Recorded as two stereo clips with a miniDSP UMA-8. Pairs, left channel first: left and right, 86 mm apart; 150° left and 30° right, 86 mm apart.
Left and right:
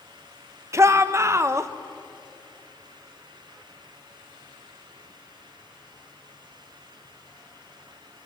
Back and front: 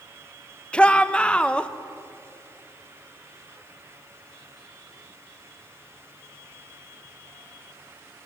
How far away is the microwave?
I don't hear a microwave.